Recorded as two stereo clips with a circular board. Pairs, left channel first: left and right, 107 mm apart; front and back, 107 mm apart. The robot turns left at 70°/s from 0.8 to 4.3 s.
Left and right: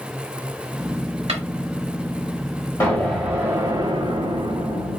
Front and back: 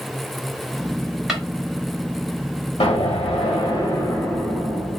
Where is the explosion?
25° left, 2.5 m; by 5.0 s 80° right, 2.5 m.